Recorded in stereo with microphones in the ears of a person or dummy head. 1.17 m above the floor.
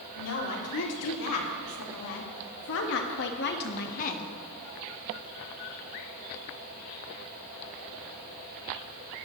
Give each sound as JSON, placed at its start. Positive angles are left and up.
{"t": 0.2, "sound": "a woman speaking", "side_deg": 80, "distance_m": 3.0}